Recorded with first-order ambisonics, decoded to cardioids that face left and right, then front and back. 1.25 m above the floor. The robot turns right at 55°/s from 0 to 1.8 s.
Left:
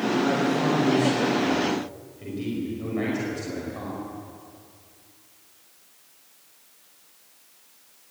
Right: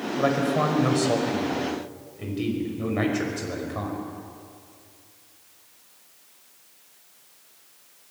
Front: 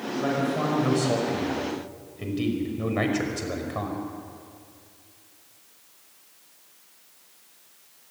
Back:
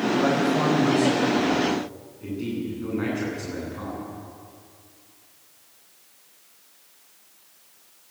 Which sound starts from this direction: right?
A man speaking, at 0.2 s.